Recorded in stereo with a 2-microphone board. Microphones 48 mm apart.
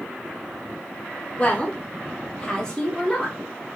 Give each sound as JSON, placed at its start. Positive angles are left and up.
{"t": 1.4, "sound": "a woman speaking", "side_deg": 30, "distance_m": 0.7}